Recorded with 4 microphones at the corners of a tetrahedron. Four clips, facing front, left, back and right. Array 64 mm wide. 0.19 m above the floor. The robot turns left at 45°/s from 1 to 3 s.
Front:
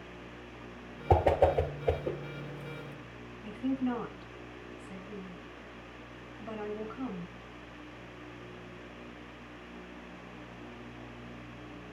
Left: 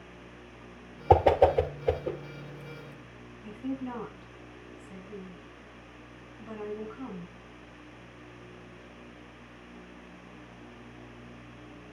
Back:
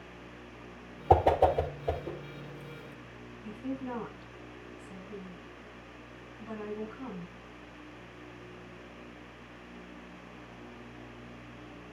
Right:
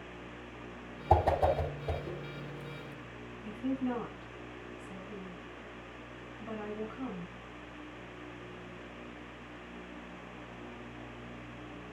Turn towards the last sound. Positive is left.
turn(degrees=-20)